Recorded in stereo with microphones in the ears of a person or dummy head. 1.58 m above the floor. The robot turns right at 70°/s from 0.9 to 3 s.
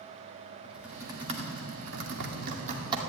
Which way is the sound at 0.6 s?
Centre (ahead or behind).